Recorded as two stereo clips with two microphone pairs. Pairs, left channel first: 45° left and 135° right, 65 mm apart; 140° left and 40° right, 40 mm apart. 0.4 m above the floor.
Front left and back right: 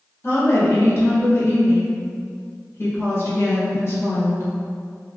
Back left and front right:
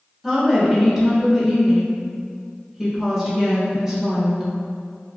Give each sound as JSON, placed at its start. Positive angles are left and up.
{"t": 0.2, "sound": "a woman speaking", "azimuth_deg": 35, "distance_m": 0.9}